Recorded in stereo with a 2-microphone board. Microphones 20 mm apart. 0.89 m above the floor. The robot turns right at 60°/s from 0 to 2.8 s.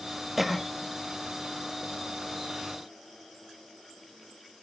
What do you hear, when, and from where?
0.4 s a cough: 15° right (ahead or behind), 1.0 m; by 0.7 s 5° left (ahead or behind), 1.0 m